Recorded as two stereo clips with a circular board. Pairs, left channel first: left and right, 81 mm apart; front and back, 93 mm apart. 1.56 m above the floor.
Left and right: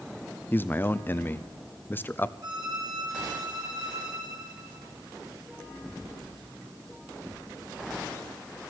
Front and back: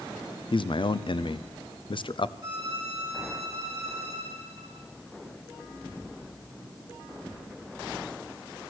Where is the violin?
130° right, 4.5 m.